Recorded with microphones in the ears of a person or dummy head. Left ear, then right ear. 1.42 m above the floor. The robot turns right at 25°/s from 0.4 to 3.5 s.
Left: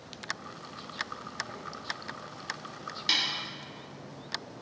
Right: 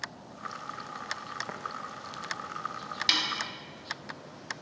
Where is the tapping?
50° right (ahead or behind), 0.6 m; by 1.6 s 55° right (ahead or behind), 0.6 m.